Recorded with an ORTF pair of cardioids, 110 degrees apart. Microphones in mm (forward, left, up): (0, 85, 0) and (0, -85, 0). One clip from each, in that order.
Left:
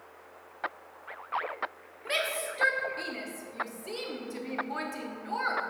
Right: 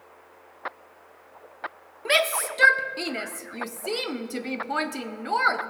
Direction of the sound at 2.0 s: 45° right.